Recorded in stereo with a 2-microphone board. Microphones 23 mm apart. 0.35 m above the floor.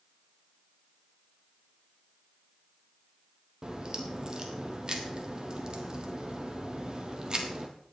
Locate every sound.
3.6 s a crack: 35° right (ahead or behind), 2.0 m